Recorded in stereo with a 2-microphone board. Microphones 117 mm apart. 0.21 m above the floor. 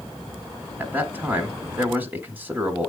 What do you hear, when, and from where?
0.8 s a man speaking: 20° right (ahead or behind), 1.2 m